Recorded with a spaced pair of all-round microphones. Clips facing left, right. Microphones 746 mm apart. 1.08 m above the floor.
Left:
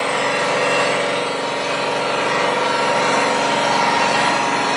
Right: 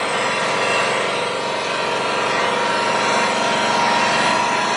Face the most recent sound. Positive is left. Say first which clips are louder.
# left 2 dB
turn(degrees=50)  # may be behind; listen again after turning